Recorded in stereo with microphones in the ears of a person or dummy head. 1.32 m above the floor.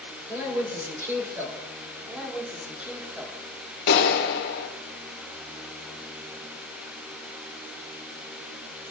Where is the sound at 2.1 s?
Centre (ahead or behind), 3 m.